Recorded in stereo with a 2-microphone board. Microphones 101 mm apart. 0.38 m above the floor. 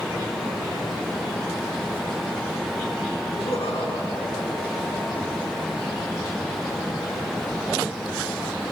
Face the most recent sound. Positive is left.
turn(degrees=80)